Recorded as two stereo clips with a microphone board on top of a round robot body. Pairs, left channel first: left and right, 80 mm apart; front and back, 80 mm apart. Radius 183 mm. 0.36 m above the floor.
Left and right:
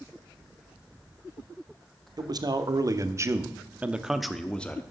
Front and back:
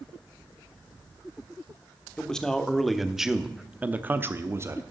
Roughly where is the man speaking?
Right.